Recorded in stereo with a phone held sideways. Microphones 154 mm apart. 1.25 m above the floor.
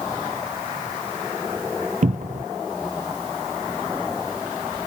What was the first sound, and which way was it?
A cupboard door, 55° right (ahead or behind).